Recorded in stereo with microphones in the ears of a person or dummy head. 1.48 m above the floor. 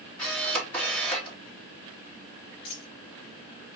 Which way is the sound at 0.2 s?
10° left (ahead or behind).